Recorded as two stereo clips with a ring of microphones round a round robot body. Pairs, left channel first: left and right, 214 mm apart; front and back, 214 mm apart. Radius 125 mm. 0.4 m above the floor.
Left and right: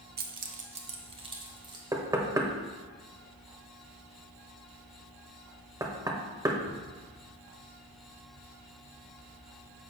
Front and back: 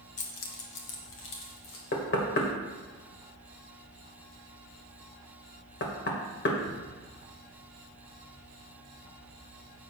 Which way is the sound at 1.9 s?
20° right.